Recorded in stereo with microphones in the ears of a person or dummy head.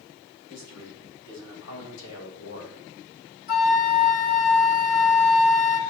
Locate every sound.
0.5 s a man speaking: 65° left (ahead or behind), 5 m; by 2.8 s 75° left (ahead or behind), 2 m
3.5 s a flute: 55° left (ahead or behind), 2 m